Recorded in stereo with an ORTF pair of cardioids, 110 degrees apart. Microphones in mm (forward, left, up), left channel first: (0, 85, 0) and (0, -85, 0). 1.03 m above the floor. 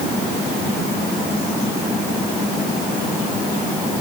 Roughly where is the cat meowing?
I don't hear a cat meowing.